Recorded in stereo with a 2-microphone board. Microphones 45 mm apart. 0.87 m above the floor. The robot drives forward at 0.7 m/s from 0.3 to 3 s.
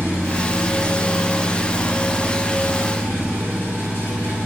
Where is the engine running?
75° left (ahead or behind), 3 m; by 4.5 s 50° left (ahead or behind), 4 m.